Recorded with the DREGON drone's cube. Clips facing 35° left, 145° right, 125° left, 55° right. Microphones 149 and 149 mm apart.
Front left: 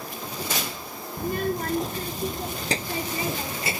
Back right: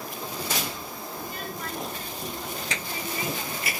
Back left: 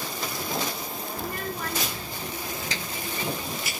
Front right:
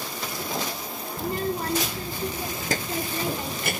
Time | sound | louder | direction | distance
1.2 | a child speaking | front left 12 dB, front right 7 dB | 10° left | ?